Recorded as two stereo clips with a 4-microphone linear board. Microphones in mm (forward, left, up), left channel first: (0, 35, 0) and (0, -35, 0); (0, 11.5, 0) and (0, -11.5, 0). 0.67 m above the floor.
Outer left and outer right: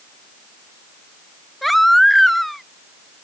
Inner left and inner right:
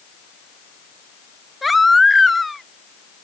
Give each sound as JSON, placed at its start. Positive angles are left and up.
{"t": 1.6, "sound": "a baby crying", "side_deg": 0}